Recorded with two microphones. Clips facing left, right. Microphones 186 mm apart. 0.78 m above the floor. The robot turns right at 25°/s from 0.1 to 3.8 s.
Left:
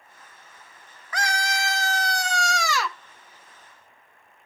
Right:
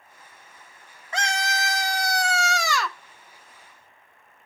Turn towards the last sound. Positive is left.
turn(degrees=30)